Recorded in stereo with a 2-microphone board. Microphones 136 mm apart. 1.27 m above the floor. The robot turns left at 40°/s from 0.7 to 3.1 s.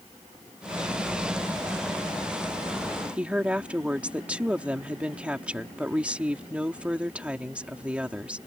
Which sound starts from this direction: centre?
A woman speaking, at 3.2 s.